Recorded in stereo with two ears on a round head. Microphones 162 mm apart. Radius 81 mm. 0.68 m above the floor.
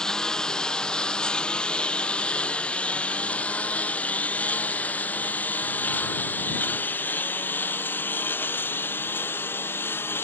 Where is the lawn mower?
5° left (ahead or behind); by 10.2 s 10° left (ahead or behind).